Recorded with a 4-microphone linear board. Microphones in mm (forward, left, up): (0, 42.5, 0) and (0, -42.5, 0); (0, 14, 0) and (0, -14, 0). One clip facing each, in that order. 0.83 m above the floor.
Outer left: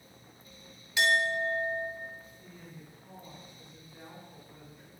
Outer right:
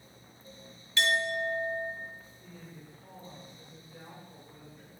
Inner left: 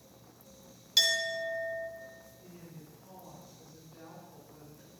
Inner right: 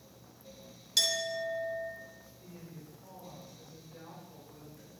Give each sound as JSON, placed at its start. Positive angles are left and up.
{"t": 1.0, "sound": "a clink", "side_deg": 15, "distance_m": 1.3}
{"t": 2.4, "sound": "a woman speaking", "side_deg": -60, "distance_m": 4.0}